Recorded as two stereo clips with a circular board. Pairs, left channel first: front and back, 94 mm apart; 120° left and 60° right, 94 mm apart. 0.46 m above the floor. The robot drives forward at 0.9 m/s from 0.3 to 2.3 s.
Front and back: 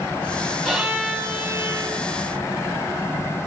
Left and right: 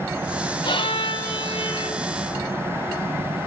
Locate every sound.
0.7 s a violin: 95° left, 1.7 m; by 2.0 s 130° left, 2 m